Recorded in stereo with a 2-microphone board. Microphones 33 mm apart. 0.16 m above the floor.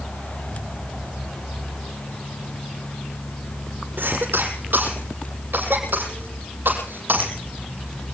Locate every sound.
4.0 s a cough: 80° right, 7 m